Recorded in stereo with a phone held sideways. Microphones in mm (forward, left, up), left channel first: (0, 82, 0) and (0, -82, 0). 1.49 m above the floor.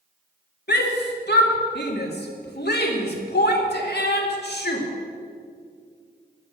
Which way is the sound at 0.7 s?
75° left (ahead or behind).